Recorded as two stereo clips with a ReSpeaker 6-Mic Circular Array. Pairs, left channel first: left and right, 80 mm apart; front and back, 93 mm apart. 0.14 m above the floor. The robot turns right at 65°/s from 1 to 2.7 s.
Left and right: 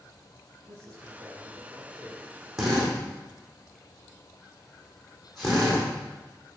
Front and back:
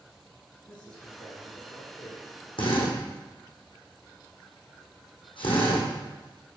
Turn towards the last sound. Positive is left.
turn(degrees=0)